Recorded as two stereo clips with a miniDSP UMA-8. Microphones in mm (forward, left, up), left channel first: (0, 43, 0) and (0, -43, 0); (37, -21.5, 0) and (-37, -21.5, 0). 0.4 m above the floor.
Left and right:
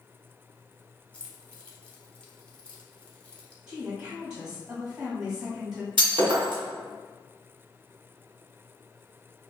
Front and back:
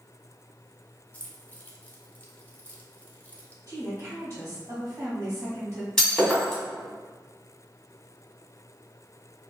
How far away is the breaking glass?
About 1.6 m.